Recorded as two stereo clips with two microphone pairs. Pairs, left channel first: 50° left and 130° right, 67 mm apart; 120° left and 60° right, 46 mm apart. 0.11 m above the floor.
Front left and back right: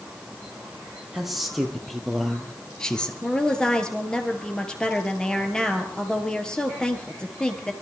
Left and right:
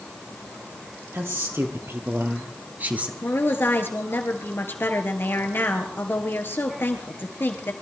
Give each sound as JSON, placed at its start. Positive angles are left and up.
{"t": 1.1, "sound": "a man speaking", "azimuth_deg": -45, "distance_m": 3.5}
{"t": 3.2, "sound": "a woman speaking", "azimuth_deg": 120, "distance_m": 2.0}